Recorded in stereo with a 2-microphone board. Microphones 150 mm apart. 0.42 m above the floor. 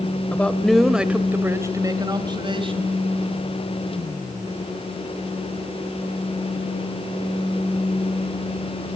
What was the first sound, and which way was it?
A man speaking, 10° left (ahead or behind).